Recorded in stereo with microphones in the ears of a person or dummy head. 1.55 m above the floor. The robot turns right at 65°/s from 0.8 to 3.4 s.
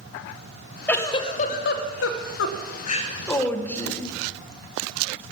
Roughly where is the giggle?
Ahead.